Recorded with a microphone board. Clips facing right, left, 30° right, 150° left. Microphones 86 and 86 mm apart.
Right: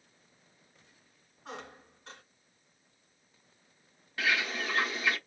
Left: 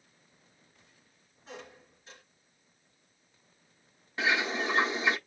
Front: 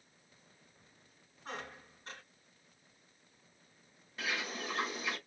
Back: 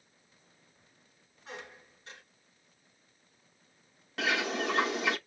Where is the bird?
155° left, 0.8 m.